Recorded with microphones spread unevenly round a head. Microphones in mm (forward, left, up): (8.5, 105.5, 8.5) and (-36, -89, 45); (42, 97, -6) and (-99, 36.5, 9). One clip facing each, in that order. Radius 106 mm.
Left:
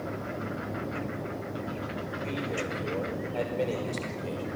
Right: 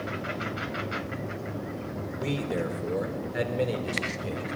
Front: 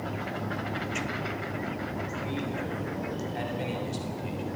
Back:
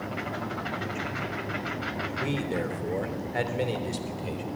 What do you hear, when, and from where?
2.2 s a man speaking: 140° right, 3.5 m; by 4.5 s 165° left, 4 m